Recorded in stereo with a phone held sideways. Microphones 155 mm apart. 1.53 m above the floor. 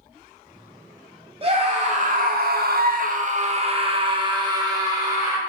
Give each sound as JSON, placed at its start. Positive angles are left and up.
{"t": 1.4, "sound": "a scream", "side_deg": -35, "distance_m": 0.8}